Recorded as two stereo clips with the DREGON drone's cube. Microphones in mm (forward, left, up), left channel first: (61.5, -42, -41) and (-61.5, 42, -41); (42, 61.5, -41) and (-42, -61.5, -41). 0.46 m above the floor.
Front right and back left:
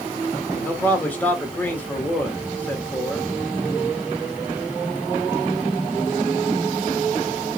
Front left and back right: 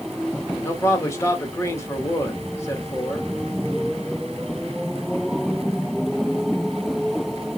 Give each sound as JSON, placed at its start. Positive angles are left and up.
{"t": 0.6, "sound": "a man speaking", "azimuth_deg": 25, "distance_m": 0.9}